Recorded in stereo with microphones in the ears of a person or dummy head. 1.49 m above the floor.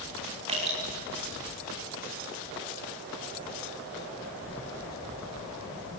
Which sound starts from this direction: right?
Dripping, at 0.5 s.